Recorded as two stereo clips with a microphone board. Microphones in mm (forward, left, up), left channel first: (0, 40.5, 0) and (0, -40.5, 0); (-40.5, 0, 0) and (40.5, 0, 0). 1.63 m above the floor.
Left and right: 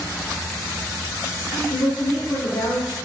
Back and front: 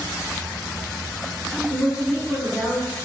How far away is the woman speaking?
About 4 m.